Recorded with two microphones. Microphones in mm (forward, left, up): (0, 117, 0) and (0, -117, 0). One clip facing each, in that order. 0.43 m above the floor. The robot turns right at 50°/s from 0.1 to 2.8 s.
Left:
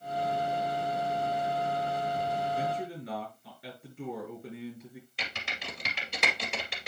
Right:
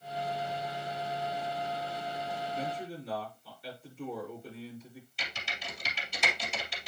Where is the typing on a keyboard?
70° left (ahead or behind), 2.5 m.